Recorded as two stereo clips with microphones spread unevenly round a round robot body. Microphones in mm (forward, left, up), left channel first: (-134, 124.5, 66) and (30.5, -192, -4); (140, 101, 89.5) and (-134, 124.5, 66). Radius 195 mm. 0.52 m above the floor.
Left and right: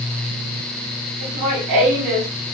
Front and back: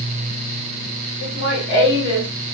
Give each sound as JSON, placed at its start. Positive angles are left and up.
{"t": 1.2, "sound": "laughter", "azimuth_deg": -35, "distance_m": 3.5}